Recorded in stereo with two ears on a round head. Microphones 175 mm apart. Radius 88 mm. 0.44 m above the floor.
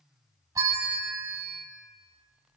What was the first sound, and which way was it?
A bell, 20° right (ahead or behind).